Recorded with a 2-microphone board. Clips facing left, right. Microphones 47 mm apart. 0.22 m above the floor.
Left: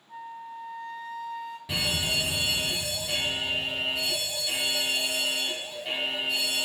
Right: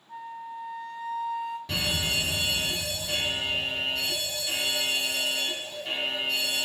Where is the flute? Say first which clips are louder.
Right 2 dB; 5° right (ahead or behind), 1.6 m.